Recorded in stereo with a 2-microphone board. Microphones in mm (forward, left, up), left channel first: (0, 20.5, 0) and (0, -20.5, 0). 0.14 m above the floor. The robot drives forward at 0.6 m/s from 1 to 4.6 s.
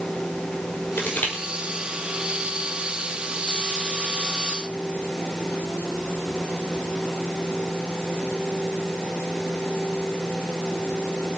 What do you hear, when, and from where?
1.0 s crushing: 55° left (ahead or behind), 5 m